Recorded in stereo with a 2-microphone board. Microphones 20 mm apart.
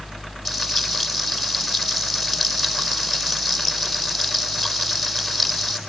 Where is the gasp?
I don't hear a gasp.